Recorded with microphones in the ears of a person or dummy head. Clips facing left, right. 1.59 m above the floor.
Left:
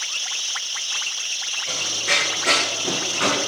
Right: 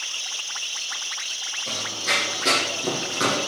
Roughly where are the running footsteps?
Right.